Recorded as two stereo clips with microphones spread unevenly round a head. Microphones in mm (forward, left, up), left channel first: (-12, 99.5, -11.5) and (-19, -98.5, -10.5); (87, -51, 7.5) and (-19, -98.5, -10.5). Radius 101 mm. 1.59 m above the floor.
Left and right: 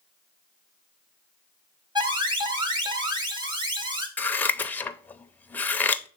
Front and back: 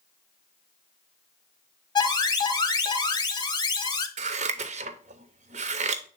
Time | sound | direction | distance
1.9 | an alarm | 25° right | 1.3 m
4.2 | scissors | 170° left | 0.5 m